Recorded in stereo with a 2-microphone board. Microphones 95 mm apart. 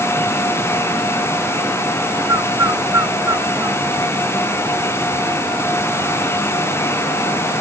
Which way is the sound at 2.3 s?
30° right (ahead or behind).